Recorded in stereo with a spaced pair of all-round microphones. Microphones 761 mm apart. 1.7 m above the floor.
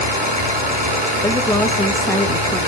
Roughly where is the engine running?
Right.